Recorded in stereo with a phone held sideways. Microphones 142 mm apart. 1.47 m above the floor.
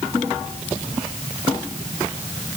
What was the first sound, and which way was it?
Only background noise.